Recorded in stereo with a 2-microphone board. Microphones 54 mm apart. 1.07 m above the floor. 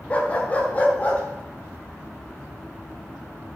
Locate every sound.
0.1 s a dog barking: 25° left (ahead or behind), 1.8 m